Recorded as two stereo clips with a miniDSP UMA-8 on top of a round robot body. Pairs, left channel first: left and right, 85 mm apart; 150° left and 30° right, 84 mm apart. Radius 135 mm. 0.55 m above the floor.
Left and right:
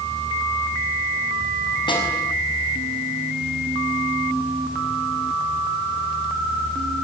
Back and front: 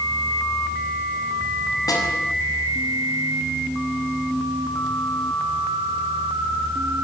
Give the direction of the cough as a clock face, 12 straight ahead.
I don't hear a cough.